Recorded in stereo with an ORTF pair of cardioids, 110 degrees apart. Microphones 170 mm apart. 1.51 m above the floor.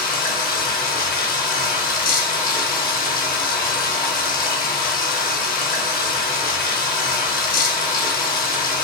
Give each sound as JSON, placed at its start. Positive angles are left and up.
{"t": 0.0, "sound": "running water", "azimuth_deg": 55, "distance_m": 1.1}